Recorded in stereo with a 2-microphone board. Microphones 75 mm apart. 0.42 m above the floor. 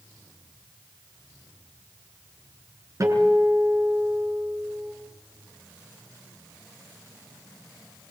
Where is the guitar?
45° right (ahead or behind), 6 m.